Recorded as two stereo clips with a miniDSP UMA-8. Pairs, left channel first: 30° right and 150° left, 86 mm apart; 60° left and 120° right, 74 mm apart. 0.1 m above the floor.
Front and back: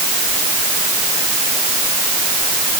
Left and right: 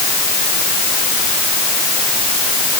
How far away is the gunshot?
No gunshot in this recording.